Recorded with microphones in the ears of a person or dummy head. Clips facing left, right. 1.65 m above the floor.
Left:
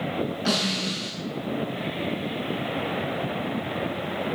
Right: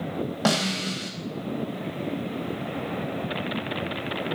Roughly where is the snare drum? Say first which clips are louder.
Right 1 dB; right.